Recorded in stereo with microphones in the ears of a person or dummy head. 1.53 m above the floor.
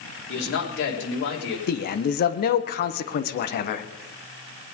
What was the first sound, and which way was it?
A man speaking, 70° left (ahead or behind).